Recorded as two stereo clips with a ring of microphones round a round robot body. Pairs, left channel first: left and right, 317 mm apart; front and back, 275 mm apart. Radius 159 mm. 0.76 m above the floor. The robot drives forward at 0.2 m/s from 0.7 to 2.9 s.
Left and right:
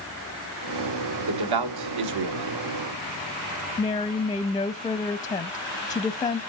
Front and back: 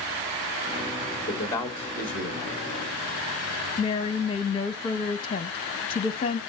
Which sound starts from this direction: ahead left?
A woman speaking, at 3.8 s.